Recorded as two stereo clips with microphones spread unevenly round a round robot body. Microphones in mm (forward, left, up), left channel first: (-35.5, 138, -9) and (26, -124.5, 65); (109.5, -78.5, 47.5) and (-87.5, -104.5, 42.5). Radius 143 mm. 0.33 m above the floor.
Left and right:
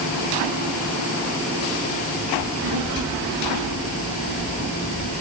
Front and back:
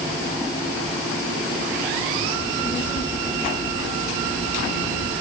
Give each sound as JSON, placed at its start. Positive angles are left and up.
{"t": 2.4, "sound": "a child speaking", "azimuth_deg": -30, "distance_m": 6.0}